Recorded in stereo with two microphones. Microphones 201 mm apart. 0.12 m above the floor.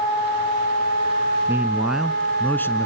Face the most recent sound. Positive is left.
turn(degrees=15)  # may be behind; listen again after turning